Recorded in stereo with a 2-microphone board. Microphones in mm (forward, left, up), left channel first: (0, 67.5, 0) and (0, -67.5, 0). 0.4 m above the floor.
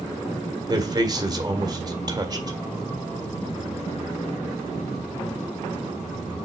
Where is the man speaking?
30° right (ahead or behind), 1.5 m.